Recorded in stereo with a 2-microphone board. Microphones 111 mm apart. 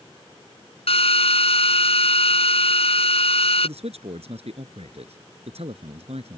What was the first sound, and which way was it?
A drill, 65° left (ahead or behind).